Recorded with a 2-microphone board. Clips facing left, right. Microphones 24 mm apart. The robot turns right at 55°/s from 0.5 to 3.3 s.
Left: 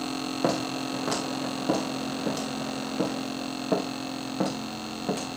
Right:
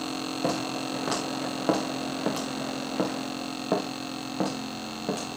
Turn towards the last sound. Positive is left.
turn(degrees=0)  # may be behind; listen again after turning